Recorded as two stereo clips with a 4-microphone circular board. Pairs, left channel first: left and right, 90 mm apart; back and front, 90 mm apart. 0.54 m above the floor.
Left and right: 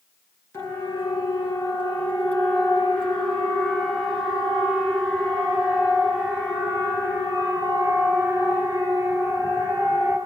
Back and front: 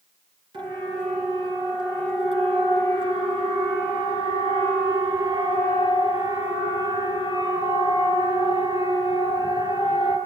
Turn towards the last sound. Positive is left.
turn(degrees=-30)